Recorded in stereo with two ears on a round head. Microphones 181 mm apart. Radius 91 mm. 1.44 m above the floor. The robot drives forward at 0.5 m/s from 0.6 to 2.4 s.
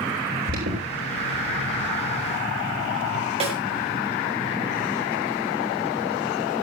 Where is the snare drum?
30° right (ahead or behind), 5.5 m.